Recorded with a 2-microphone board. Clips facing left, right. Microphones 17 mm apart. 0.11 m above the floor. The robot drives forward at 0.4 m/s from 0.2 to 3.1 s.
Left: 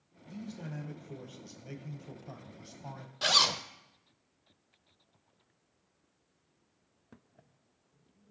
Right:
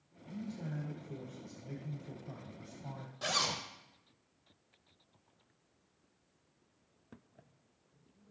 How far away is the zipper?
About 0.6 m.